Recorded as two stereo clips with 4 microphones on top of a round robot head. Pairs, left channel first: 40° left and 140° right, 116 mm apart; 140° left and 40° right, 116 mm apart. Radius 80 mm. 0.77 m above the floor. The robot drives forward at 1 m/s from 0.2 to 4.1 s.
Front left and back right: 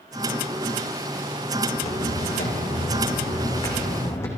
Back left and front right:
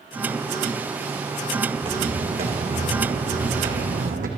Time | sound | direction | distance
1.7 | footsteps | 5° left | 4 m